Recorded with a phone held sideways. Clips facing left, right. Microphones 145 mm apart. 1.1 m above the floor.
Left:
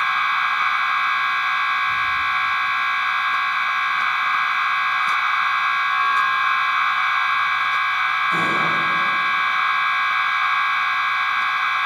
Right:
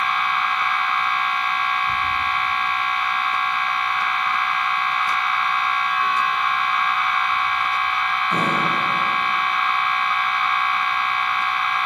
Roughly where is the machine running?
Right.